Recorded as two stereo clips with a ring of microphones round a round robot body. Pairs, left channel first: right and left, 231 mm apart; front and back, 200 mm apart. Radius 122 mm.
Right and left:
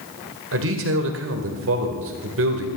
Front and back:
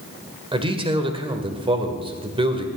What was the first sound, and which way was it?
A man speaking, 115° left.